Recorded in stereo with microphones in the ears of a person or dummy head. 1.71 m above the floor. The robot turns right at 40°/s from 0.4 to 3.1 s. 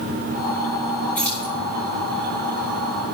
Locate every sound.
1.1 s keys jangling: 10° left (ahead or behind), 5 m; by 1.5 s 5° right (ahead or behind), 5 m